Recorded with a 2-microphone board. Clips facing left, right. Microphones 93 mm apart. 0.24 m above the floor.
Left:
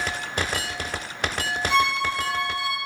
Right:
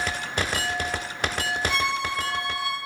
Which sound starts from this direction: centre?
A violin, at 1.7 s.